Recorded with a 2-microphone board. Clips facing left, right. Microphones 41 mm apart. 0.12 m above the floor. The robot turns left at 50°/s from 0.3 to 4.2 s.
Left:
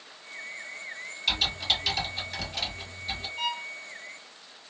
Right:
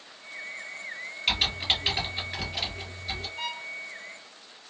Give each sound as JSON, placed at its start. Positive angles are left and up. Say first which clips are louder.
{"t": 1.3, "sound": "typing on a keyboard", "louder": "right 1 dB", "side_deg": -45, "distance_m": 1.8}
{"t": 3.4, "sound": "a violin", "louder": "left 7 dB", "side_deg": 25, "distance_m": 1.1}